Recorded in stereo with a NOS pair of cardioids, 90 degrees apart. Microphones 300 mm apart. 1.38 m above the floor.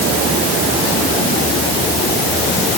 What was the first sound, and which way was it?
Only background noise.